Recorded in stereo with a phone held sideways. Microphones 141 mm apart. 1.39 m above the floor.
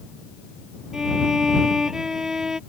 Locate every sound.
0.9 s a violin: 5° right (ahead or behind)